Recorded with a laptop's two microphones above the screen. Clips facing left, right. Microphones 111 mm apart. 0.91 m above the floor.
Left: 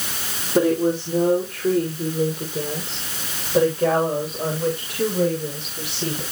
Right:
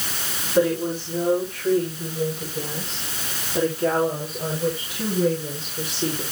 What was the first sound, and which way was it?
A woman speaking, 55° left (ahead or behind).